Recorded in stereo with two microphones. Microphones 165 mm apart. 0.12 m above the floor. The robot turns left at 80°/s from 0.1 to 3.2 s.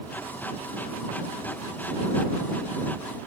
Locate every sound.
Only background noise.